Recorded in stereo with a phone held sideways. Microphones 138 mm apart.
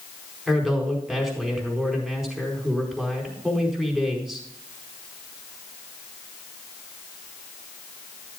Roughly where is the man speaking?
Centre.